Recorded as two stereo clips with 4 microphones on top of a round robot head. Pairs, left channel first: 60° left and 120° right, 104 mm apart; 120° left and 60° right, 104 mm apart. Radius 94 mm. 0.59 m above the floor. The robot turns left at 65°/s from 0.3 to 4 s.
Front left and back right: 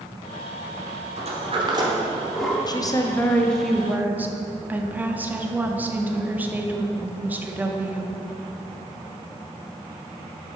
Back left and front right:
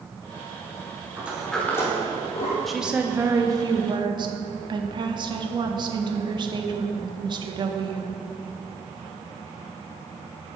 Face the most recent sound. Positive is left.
turn(degrees=-55)